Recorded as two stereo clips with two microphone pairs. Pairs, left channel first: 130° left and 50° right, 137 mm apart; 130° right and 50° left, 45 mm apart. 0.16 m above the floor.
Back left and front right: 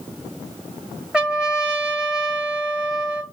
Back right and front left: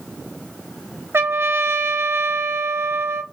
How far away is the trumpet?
About 1.3 m.